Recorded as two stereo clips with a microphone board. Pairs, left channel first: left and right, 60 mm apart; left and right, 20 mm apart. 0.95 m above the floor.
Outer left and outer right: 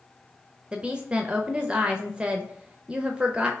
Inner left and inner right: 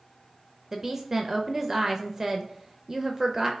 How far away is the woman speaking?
About 0.6 m.